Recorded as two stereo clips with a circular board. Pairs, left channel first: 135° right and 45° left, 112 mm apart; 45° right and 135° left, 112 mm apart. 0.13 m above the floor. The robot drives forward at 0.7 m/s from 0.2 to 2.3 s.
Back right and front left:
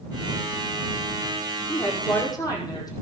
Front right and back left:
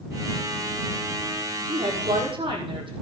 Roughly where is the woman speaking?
Behind.